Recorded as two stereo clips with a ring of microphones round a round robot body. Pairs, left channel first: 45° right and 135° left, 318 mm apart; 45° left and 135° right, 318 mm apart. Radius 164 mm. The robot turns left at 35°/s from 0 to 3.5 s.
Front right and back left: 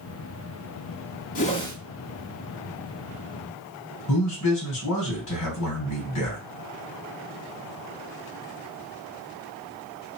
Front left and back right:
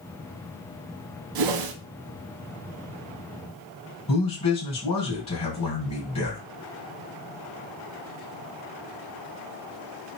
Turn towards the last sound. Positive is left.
turn(degrees=-25)